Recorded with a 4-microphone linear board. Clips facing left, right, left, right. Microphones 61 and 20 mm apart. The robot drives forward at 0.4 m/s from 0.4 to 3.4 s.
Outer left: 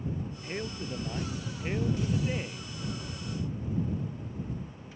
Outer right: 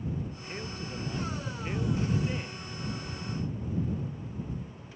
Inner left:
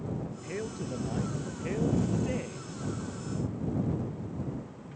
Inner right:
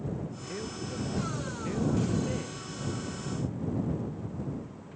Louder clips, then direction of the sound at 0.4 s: Outer left 3 dB, inner left 1 dB; 20° left (ahead or behind).